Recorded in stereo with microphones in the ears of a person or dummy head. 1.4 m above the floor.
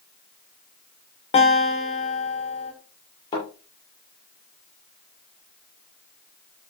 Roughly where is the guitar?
Left.